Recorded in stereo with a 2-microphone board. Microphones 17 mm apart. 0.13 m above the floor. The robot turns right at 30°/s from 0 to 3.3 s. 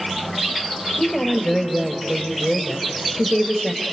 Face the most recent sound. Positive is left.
turn(degrees=-170)